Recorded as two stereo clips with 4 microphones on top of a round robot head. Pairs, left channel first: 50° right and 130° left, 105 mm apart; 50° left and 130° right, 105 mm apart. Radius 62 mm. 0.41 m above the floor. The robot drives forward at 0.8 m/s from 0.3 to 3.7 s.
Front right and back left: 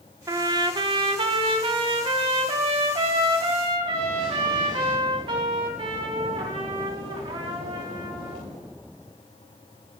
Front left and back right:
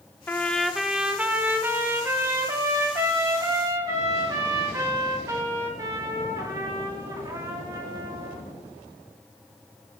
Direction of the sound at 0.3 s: 115° left.